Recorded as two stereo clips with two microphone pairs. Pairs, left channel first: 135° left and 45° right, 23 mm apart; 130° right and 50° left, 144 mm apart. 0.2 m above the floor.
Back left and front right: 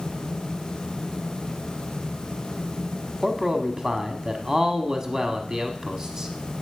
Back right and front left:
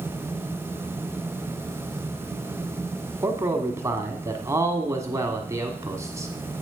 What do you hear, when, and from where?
3.2 s a man speaking: 10° right, 1.2 m